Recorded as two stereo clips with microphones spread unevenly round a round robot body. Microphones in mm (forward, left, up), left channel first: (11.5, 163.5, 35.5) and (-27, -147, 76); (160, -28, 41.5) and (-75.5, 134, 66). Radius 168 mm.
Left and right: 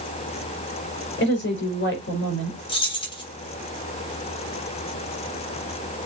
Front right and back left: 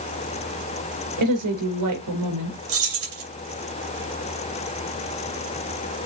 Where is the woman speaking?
135° left, 4 m.